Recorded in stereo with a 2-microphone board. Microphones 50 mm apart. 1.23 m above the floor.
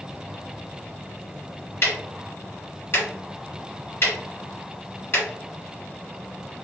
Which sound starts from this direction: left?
Ticking, at 1.8 s.